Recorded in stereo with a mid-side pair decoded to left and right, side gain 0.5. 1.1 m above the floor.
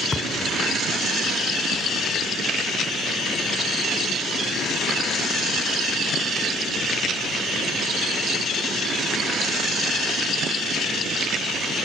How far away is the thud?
About 4 m.